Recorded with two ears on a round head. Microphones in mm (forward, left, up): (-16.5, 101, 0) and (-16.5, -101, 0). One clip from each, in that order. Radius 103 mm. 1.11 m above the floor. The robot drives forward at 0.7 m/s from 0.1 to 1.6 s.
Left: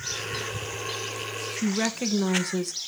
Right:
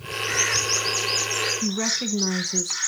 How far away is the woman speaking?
About 1.1 m.